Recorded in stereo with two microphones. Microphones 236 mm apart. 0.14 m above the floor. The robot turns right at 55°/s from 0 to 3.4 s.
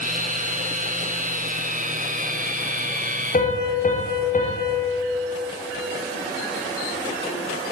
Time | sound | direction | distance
3.3 | a piano | 35° left (ahead or behind) | 6.5 m